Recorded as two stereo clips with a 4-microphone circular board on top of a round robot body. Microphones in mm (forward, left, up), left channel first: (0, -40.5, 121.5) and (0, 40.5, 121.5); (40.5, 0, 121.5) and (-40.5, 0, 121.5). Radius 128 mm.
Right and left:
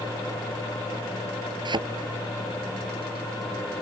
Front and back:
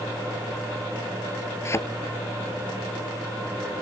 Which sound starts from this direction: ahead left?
A thud, at 1.6 s.